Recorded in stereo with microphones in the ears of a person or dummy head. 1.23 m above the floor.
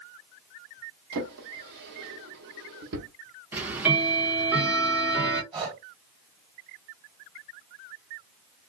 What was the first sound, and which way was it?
A drawer, 55° right (ahead or behind).